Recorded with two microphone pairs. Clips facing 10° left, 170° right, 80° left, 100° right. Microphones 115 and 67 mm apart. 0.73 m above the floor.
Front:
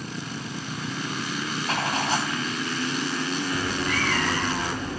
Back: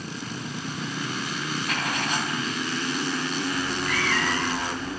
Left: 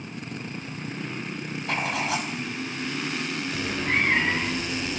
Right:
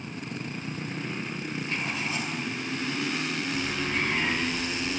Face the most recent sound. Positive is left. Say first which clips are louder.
# front 1 dB, left 6 dB
turn(degrees=55)